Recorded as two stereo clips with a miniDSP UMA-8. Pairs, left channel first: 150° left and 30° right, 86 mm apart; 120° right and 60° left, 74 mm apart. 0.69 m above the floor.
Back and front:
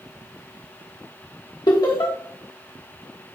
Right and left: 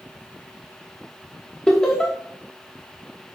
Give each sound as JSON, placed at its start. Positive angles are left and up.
{"t": 1.7, "sound": "laughter", "azimuth_deg": 160, "distance_m": 1.2}